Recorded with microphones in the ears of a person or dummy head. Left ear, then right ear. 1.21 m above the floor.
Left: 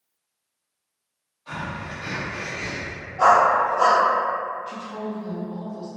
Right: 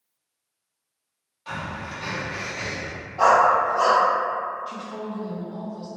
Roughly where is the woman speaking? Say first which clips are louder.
Left 1 dB; centre.